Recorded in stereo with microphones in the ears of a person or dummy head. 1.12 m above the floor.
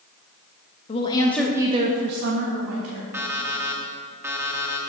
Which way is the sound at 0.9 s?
35° left (ahead or behind).